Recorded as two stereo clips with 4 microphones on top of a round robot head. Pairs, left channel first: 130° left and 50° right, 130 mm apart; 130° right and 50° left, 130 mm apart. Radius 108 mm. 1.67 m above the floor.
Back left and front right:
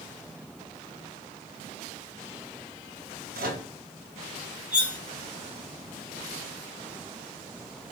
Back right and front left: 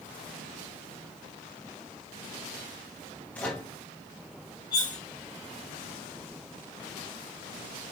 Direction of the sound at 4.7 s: 120° right.